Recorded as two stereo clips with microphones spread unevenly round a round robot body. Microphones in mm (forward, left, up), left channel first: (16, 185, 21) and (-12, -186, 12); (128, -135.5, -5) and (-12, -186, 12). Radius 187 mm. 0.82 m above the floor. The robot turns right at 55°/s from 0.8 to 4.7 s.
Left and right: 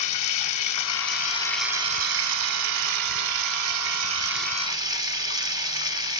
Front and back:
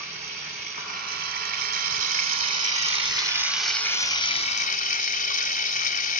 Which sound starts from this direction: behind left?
Running water, at 0.0 s.